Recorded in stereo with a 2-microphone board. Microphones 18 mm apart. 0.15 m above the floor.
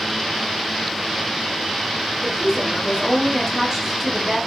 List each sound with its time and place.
2.2 s a woman speaking: 15° right (ahead or behind), 1.6 m